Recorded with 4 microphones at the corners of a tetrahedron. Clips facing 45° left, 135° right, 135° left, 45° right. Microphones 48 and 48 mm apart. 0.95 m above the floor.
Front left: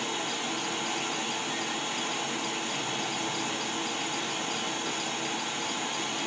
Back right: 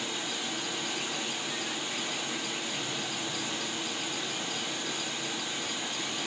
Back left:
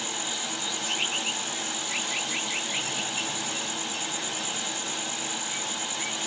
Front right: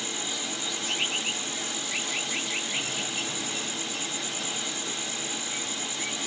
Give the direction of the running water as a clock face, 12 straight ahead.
9 o'clock.